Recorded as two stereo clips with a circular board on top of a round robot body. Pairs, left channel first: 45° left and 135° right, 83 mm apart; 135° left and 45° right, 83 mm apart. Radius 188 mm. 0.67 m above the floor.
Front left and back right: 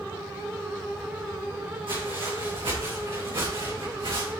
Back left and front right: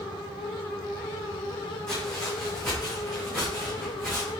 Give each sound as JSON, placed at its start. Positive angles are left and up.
{"t": 1.9, "sound": "footsteps", "azimuth_deg": -140, "distance_m": 3.0}